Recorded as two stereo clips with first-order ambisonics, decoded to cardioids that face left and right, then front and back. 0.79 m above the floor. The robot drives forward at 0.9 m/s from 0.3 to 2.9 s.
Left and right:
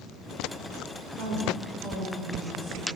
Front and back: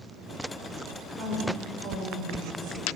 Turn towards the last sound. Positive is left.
turn(degrees=-145)